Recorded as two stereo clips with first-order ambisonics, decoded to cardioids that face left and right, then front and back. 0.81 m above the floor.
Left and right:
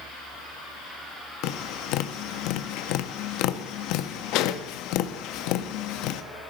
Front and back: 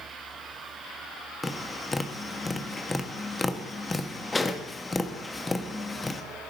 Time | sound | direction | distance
1.4 | tapping | 80° left | 0.8 m